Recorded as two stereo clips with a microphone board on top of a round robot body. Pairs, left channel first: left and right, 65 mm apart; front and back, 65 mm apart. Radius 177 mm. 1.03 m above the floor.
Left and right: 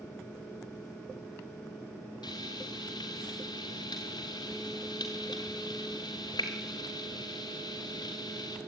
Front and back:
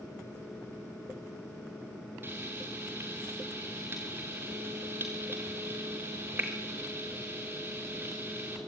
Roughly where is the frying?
Behind left.